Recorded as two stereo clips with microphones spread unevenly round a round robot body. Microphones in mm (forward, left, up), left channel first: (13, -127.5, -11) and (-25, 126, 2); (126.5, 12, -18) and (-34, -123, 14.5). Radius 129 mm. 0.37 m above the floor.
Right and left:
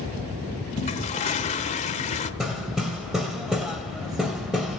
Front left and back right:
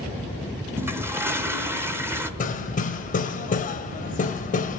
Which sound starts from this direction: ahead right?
A toilet flushing, at 0.8 s.